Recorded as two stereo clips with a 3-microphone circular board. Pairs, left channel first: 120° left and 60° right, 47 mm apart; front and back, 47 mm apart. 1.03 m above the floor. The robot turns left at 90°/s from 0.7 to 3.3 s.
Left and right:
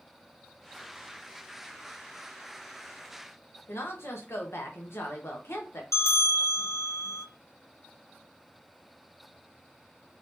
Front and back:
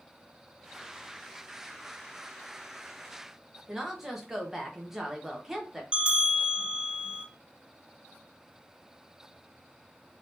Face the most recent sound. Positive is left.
turn(degrees=110)